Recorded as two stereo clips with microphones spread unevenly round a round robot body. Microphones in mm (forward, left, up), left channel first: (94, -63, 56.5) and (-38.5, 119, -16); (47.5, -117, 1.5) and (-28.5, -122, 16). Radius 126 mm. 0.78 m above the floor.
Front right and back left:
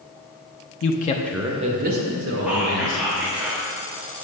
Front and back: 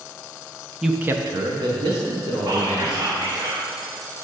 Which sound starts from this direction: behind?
Whispering, at 2.5 s.